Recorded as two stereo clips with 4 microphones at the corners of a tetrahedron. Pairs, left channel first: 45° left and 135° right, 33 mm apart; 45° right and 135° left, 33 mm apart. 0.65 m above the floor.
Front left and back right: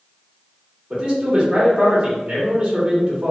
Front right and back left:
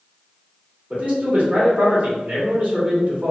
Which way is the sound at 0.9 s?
170° left.